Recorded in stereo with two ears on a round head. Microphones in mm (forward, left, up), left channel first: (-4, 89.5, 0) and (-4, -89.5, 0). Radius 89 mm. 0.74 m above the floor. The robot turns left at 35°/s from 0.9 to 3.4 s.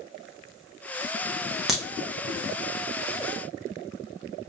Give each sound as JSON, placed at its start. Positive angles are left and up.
{"t": 1.7, "sound": "a crack", "side_deg": -5, "distance_m": 0.7}